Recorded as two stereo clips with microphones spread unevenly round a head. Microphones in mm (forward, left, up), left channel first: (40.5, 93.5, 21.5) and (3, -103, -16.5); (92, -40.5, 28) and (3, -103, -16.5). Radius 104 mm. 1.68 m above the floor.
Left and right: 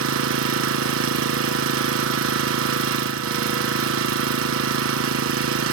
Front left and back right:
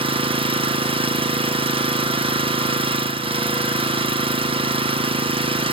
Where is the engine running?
100° right, 1.5 m.